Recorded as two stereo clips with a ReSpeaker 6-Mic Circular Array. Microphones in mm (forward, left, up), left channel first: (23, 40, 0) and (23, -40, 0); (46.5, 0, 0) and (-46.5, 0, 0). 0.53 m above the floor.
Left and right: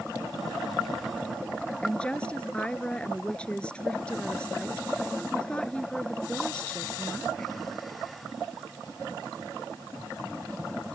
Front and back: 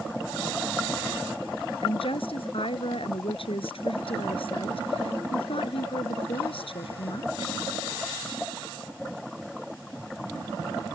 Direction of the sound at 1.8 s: 15° left.